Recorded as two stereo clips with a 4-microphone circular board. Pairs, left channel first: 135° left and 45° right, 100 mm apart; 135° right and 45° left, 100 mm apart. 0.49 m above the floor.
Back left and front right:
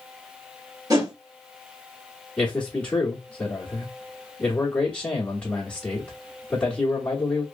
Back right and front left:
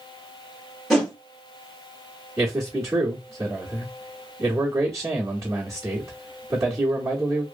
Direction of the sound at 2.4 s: 65° left.